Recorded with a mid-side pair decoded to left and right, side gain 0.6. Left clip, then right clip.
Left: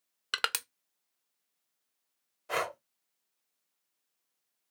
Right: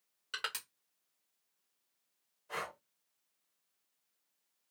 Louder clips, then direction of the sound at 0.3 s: Left 8 dB; 65° left.